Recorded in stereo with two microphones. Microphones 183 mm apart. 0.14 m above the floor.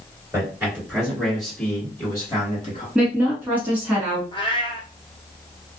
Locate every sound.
0.3 s a man speaking: 15° right (ahead or behind), 1.9 m; by 2.9 s 30° left (ahead or behind), 1.7 m
3.0 s a woman speaking: 10° right (ahead or behind), 1.4 m
4.3 s a cat meowing: 25° left (ahead or behind), 1.0 m